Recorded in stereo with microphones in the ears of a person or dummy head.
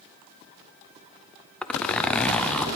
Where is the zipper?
5° left (ahead or behind), 0.5 m.